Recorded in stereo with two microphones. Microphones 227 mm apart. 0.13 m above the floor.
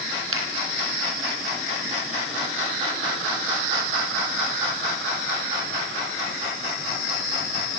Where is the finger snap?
70° right (ahead or behind), 4.5 m.